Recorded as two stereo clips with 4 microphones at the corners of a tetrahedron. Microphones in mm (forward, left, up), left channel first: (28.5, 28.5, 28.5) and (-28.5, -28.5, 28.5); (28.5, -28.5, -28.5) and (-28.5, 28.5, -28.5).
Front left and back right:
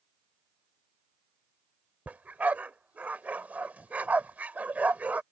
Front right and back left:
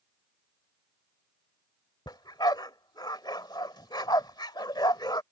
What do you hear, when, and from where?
2.1 s a dog barking: 65° right